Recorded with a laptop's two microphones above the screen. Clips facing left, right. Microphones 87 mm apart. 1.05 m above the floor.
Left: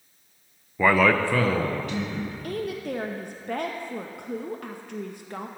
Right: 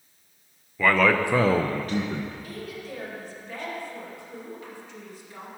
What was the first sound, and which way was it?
A man speaking, 20° left (ahead or behind).